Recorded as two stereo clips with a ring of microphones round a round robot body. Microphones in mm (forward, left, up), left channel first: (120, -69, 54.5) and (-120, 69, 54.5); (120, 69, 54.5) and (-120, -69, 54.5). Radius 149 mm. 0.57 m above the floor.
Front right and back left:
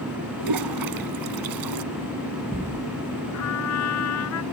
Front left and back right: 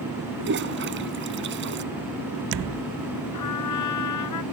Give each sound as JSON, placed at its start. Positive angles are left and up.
{"t": 0.4, "sound": "a toilet flushing", "azimuth_deg": 160}
{"t": 3.3, "sound": "a trumpet", "azimuth_deg": 5}